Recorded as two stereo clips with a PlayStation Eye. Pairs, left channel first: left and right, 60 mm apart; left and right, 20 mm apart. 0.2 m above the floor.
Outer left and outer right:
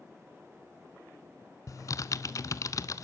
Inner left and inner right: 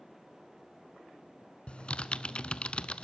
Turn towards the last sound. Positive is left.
turn(degrees=65)  # may be behind; listen again after turning